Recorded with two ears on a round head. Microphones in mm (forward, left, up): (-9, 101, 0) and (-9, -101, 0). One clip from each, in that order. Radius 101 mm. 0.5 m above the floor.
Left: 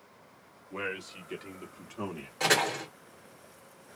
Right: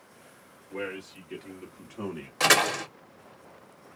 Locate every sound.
0.7 s a man speaking: 30° left (ahead or behind), 1.4 m; by 2.3 s 5° left (ahead or behind), 1.3 m
2.4 s a door slam: 35° right (ahead or behind), 1.0 m